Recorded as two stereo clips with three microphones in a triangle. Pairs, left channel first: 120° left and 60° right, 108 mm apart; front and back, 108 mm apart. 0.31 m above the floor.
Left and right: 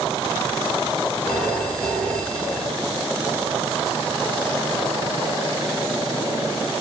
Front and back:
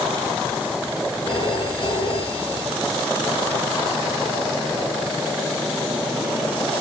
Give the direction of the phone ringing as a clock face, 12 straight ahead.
11 o'clock.